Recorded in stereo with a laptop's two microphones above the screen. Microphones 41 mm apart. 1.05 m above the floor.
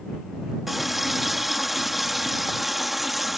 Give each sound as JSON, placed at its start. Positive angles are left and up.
{"t": 0.7, "sound": "a running tap", "side_deg": -5}